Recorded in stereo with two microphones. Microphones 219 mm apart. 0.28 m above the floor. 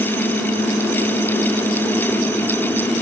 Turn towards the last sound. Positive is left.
No sound to turn to.